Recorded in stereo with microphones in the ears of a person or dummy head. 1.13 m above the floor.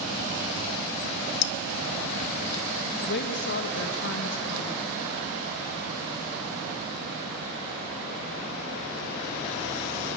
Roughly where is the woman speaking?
Left.